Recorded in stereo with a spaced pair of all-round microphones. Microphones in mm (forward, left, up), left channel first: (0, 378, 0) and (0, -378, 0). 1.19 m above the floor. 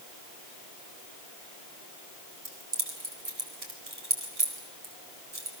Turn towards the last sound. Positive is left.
turn(degrees=-50)  # may be behind; listen again after turning